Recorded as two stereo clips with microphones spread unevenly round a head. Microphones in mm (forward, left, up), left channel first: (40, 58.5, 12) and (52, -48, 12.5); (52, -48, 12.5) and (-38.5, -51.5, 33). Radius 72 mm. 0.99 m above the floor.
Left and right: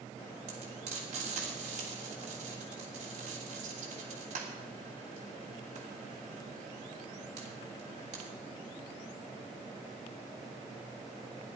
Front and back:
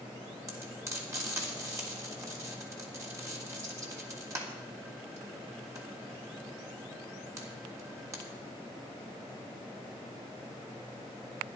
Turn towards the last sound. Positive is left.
turn(degrees=-120)